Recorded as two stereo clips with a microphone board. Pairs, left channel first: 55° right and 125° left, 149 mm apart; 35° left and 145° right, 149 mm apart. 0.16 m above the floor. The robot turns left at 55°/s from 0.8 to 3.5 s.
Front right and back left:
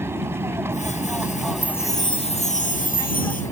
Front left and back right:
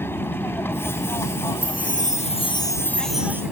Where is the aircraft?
80° left; by 3.5 s 70° right.